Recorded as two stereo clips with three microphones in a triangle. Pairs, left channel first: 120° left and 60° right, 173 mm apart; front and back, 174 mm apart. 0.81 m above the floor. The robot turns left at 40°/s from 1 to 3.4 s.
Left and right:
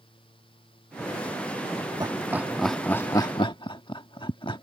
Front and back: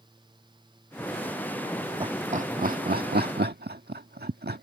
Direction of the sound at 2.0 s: 125° right.